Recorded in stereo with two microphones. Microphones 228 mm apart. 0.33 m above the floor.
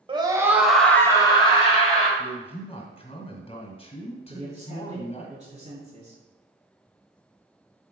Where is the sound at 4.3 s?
30° right (ahead or behind), 2 m.